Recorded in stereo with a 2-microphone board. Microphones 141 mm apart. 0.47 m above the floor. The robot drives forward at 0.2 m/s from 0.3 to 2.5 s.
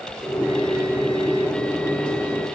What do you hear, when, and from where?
Only background noise.